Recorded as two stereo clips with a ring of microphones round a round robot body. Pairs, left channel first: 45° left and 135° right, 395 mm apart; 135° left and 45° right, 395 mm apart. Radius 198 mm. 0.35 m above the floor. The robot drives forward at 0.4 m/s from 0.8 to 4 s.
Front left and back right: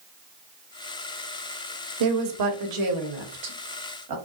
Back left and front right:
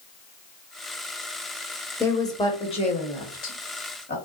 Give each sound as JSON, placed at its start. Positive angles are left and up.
{"t": 2.0, "sound": "a woman speaking", "azimuth_deg": -140, "distance_m": 1.1}